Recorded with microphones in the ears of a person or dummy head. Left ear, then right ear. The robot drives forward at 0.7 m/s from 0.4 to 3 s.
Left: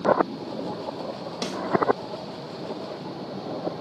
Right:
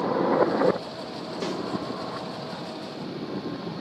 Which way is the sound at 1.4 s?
25° left (ahead or behind).